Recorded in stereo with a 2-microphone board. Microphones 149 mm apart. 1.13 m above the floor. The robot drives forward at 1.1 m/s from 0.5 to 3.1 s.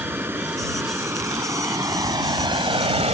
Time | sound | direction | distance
0.0 | running water | 15° right (ahead or behind) | ?